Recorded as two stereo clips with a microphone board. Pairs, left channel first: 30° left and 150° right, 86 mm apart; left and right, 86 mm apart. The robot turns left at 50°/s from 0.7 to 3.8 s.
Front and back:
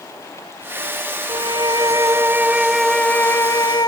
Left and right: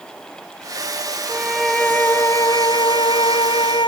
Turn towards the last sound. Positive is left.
turn(degrees=70)